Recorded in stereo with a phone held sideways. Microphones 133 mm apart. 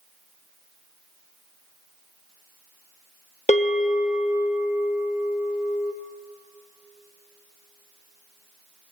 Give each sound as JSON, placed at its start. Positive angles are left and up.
{"t": 3.5, "sound": "a bell", "side_deg": 60, "distance_m": 1.1}